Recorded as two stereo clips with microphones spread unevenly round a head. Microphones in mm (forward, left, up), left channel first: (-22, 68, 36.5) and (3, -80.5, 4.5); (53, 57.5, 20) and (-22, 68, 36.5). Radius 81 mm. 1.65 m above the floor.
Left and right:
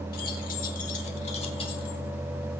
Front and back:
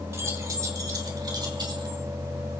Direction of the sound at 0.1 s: 125° left.